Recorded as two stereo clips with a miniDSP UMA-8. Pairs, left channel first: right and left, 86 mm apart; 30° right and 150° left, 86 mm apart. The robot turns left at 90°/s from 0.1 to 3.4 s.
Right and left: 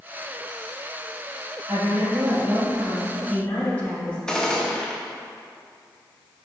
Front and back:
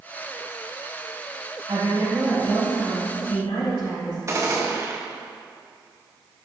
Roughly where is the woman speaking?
Behind left.